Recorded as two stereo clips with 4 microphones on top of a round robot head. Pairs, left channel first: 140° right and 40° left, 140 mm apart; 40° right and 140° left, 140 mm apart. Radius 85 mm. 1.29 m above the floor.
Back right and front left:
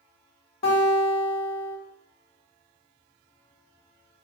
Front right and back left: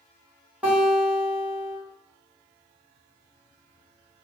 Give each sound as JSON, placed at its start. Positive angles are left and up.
{"t": 0.6, "sound": "a guitar", "azimuth_deg": -140, "distance_m": 1.7}